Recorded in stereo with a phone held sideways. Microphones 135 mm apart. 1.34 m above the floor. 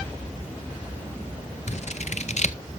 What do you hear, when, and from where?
1.7 s scissors: 60° left (ahead or behind), 0.6 m